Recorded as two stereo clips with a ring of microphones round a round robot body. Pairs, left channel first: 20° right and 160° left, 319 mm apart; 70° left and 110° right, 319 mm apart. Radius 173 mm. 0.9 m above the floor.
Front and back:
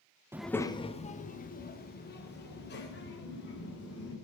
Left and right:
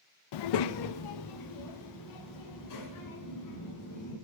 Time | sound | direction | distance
0.3 | a child speaking | 75° left | 0.5 m